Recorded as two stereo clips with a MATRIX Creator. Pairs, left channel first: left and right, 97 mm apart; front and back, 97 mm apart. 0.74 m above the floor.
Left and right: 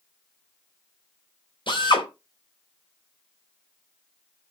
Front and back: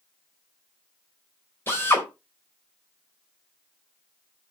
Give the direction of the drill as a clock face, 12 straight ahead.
10 o'clock.